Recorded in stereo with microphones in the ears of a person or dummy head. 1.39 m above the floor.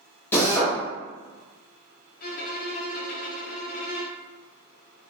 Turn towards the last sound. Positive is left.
turn(degrees=55)  # may be behind; listen again after turning